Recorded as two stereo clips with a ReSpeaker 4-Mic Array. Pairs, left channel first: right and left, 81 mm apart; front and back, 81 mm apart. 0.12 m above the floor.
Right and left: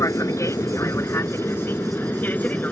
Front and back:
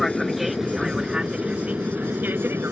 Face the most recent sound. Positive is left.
turn(degrees=-145)